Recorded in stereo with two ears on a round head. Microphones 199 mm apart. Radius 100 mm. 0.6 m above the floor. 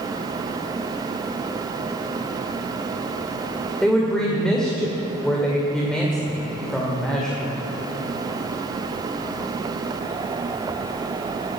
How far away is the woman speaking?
About 2 m.